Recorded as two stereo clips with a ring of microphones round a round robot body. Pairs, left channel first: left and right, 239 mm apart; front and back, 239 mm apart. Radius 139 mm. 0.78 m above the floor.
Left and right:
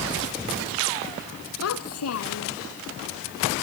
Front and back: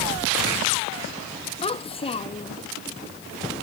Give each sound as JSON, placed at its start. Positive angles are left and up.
{"t": 1.6, "sound": "a child speaking", "azimuth_deg": 65}